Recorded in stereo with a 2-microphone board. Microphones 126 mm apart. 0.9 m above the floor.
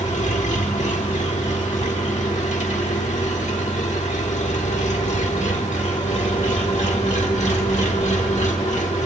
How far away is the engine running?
About 1.2 m.